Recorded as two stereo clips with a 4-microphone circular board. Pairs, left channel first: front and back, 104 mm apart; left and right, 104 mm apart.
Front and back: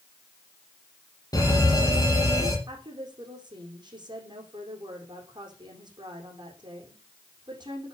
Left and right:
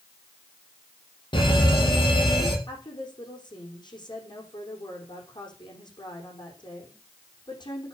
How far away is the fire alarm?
About 6 m.